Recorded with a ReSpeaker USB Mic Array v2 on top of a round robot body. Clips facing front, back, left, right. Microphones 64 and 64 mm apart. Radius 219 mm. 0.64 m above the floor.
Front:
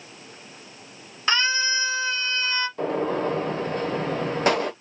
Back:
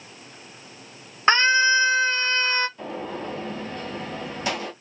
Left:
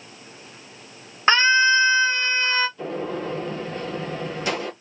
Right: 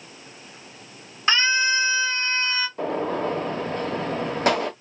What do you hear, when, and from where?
1.3 s a scream: 135° left, 1.4 m
2.8 s a gunshot: 45° right, 1.1 m